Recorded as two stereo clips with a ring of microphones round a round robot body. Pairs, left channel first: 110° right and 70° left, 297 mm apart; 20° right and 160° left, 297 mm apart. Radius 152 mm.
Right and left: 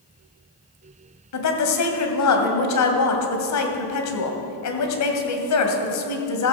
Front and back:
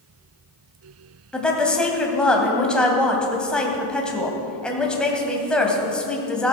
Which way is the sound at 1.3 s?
110° right.